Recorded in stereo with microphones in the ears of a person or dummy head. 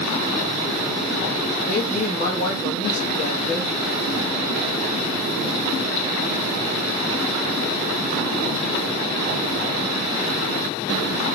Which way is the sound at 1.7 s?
35° left (ahead or behind).